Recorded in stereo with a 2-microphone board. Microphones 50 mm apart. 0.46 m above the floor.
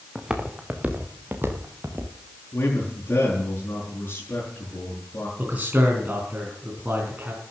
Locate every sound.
0.1 s footsteps: 10° right (ahead or behind), 3 m; by 2.1 s 60° right (ahead or behind), 3.5 m
2.5 s a man speaking: 50° left (ahead or behind), 6.5 m
5.4 s a man speaking: 30° right (ahead or behind), 4 m